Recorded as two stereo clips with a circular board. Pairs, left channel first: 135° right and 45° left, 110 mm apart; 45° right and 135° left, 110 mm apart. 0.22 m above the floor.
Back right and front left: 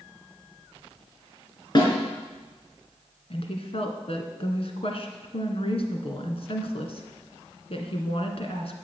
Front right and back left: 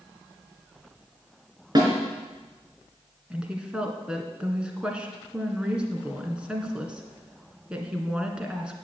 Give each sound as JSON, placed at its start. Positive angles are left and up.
{"t": 1.8, "sound": "a snare drum", "azimuth_deg": 180, "distance_m": 4.0}
{"t": 3.3, "sound": "a woman speaking", "azimuth_deg": -145, "distance_m": 2.0}